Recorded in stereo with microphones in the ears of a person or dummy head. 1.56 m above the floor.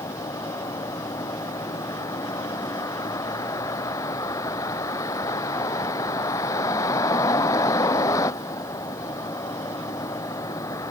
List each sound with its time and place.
0.0 s a vehicle: 20° left (ahead or behind)